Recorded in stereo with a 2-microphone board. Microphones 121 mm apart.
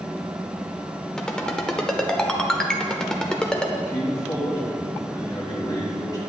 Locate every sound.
1.2 s a ringtone: 5° left (ahead or behind), 0.7 m
3.8 s a man speaking: 30° left (ahead or behind), 3.5 m